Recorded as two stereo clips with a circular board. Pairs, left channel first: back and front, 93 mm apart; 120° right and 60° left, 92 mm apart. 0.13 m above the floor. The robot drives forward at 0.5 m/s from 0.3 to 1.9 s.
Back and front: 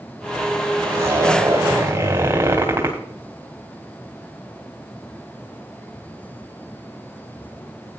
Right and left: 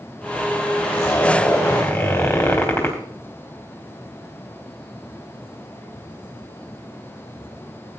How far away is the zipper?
About 4.5 m.